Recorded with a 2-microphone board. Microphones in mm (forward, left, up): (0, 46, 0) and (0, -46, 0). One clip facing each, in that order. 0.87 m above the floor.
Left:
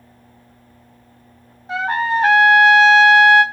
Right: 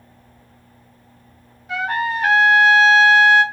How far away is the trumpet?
About 1.1 m.